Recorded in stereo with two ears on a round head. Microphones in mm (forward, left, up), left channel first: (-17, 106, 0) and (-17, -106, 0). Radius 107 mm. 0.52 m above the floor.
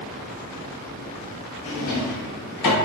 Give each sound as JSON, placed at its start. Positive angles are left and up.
{"t": 1.6, "sound": "a drawer", "side_deg": 70, "distance_m": 1.2}